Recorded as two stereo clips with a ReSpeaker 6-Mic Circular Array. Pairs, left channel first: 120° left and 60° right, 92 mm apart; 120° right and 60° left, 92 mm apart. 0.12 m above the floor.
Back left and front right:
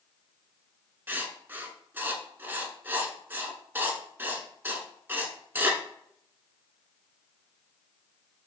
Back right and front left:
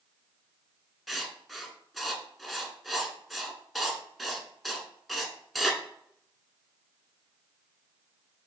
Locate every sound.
1.1 s writing: 25° right, 0.6 m